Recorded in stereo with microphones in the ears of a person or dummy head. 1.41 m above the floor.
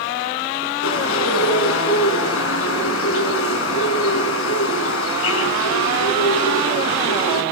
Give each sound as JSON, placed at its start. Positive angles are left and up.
{"t": 0.8, "sound": "a bird", "side_deg": 75, "distance_m": 7.0}